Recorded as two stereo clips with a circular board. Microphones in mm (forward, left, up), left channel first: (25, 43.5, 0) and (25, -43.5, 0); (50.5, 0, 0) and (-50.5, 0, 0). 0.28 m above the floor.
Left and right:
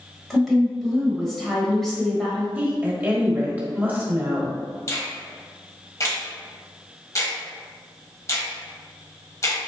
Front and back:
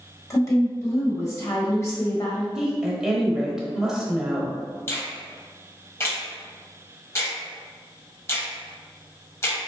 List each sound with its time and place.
0.3 s a woman speaking: 5° left, 1.1 m
2.5 s a woman speaking: 105° right, 0.9 m
4.9 s a finger snap: 55° left, 1.1 m